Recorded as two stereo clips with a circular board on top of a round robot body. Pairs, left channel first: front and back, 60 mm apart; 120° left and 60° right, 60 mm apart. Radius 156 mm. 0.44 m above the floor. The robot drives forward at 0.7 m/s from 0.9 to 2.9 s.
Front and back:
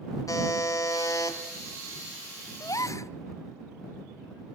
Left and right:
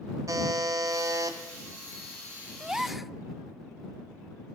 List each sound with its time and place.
0.3 s a buzzer: 30° right, 2.5 m; by 1.4 s 35° right, 2.0 m
2.6 s a gasp: 20° left, 0.7 m; by 3.1 s 30° left, 0.6 m